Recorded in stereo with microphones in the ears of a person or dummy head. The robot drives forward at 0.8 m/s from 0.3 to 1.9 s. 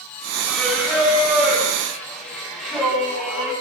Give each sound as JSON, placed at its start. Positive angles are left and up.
{"t": 0.5, "sound": "singing", "side_deg": -5, "distance_m": 9.5}